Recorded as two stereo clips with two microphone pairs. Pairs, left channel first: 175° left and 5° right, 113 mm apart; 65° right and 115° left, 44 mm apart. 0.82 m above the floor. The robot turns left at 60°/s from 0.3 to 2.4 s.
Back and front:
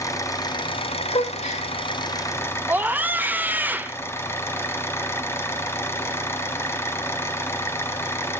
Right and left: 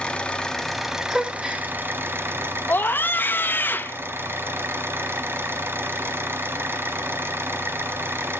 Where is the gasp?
150° right, 1.7 m; by 1.7 s 175° left, 1.7 m.